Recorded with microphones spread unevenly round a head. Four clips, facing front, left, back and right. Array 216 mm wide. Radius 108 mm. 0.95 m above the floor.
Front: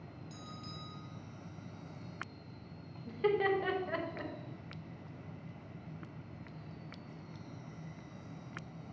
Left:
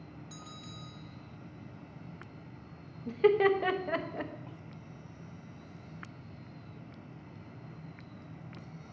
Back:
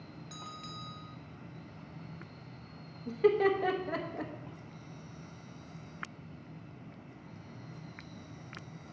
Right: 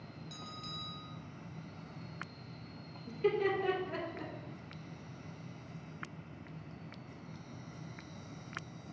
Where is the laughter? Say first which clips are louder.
Left 7 dB, back 5 dB; 115° left, 0.8 m.